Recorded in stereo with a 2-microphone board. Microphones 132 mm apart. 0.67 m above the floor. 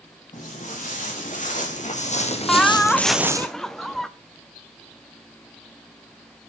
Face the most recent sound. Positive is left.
turn(degrees=5)  # may be behind; listen again after turning